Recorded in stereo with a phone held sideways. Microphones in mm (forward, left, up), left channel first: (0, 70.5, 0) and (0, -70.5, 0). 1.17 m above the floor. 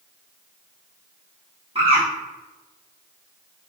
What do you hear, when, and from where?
1.8 s a bird: 40° right (ahead or behind), 1.4 m